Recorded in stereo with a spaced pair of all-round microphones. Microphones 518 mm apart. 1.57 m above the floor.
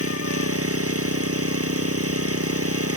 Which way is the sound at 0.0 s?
25° right (ahead or behind).